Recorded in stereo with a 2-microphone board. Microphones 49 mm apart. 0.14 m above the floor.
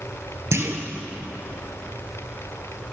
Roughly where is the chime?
No chime in this recording.